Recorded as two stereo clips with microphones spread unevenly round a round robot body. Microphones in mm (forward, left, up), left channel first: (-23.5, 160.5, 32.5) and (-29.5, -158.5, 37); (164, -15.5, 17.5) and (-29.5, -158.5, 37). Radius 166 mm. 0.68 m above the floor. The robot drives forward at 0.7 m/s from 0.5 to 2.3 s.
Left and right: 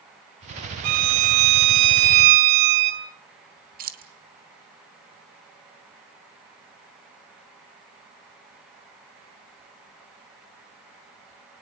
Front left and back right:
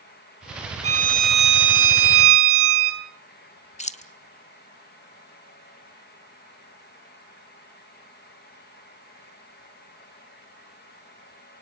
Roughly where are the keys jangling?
Ahead right.